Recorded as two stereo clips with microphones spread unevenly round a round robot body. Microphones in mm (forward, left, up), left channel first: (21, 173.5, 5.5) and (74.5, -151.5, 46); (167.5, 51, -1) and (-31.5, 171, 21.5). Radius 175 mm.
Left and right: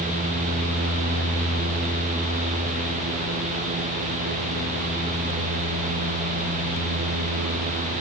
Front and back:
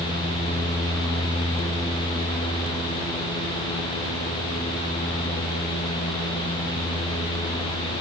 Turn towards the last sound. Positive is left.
No sound to turn to.